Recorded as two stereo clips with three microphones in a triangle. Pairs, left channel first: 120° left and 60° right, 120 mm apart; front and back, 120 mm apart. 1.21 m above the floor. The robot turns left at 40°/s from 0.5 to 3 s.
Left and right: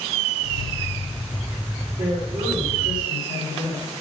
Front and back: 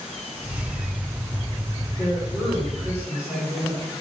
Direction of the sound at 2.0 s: 65° right.